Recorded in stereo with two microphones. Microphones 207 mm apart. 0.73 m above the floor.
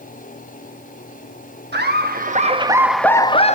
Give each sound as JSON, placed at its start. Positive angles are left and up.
{"t": 1.7, "sound": "laughter", "side_deg": -60, "distance_m": 1.1}